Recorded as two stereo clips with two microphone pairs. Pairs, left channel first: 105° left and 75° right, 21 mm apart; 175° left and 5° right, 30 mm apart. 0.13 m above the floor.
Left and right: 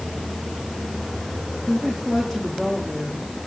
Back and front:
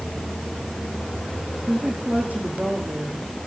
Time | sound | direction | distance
1.7 | a woman speaking | 15° left | 8.5 m